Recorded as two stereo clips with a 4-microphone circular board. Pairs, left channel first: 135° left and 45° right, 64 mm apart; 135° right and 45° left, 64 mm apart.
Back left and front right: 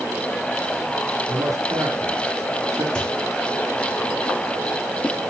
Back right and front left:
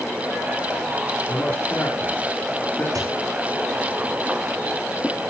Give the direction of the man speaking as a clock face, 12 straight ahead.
2 o'clock.